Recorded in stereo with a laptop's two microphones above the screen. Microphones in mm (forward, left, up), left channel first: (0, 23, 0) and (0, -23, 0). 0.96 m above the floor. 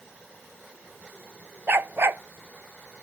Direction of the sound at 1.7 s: 55° right (ahead or behind).